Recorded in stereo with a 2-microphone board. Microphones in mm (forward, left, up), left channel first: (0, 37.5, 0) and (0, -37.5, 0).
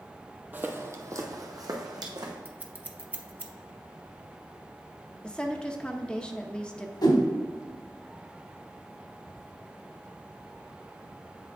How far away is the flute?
No flute in this recording.